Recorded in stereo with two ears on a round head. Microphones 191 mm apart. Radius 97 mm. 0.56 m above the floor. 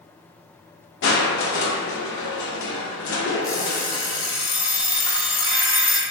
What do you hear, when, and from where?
1.0 s crushing: 55° left (ahead or behind), 0.5 m
3.4 s an alarm clock: 20° left (ahead or behind), 0.7 m